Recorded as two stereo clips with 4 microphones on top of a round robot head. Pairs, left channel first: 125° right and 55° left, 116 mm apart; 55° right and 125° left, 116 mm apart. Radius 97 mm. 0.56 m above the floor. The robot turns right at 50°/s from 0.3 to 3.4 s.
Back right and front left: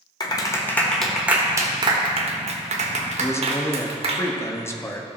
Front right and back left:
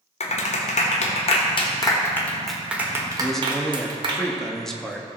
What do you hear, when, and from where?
0.2 s a clap: 75° right, 1.4 m; by 4.2 s 80° left, 1.4 m
3.2 s a man speaking: 145° right, 1.3 m; by 5.1 s 130° right, 1.3 m